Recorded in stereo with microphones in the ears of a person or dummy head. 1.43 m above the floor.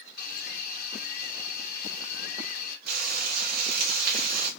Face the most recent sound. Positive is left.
turn(degrees=-50)  # may be behind; listen again after turning